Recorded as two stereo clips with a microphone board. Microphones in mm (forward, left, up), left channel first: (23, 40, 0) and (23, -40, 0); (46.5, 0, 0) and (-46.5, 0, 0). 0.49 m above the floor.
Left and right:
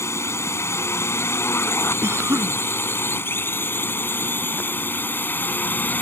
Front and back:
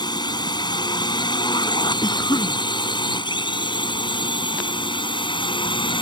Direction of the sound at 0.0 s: 35° left.